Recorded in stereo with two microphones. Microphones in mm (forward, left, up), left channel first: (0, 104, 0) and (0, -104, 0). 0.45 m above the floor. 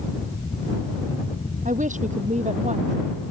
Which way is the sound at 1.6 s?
35° right (ahead or behind).